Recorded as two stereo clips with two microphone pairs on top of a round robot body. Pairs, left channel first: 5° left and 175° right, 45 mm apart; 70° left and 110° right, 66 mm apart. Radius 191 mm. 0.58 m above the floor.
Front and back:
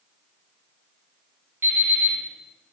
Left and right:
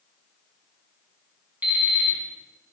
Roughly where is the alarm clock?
Behind.